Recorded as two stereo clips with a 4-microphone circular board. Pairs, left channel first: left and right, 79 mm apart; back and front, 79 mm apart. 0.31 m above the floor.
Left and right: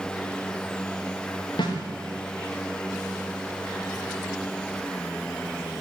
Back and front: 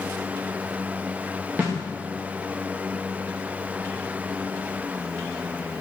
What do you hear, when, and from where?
1.6 s a snare drum: 65° left, 8.5 m